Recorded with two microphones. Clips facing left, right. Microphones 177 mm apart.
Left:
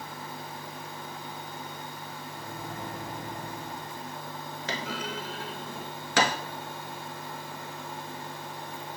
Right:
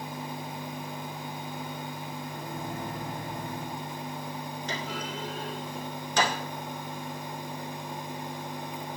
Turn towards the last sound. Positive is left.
turn(degrees=80)